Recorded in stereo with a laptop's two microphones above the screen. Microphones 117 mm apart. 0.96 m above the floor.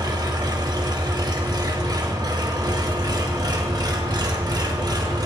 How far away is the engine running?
About 0.8 m.